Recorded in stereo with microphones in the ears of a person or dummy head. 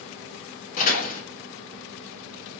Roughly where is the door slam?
Left.